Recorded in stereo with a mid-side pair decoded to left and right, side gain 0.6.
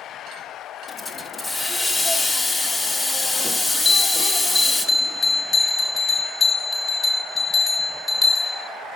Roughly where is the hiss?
Ahead.